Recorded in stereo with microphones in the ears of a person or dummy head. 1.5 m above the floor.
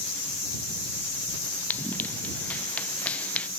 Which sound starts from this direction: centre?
Running footsteps, at 1.7 s.